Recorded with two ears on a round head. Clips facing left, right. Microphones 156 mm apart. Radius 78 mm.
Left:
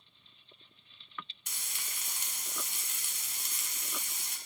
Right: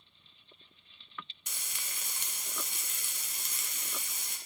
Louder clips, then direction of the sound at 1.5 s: Right 1 dB; 70° right (ahead or behind).